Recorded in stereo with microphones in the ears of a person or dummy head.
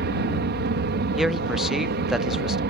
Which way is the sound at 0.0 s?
55° right (ahead or behind).